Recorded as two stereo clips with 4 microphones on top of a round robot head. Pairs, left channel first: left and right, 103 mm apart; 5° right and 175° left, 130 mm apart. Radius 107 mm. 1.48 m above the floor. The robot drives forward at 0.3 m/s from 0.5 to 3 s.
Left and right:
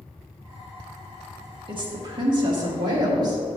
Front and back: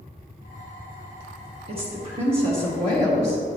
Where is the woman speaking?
130° right, 2 m; by 3.4 s 140° right, 2.5 m.